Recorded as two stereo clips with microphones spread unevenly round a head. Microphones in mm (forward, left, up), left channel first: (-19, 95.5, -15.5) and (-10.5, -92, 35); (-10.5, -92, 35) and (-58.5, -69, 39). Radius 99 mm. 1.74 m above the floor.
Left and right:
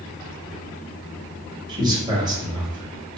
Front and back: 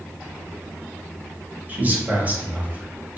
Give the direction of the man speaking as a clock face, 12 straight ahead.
5 o'clock.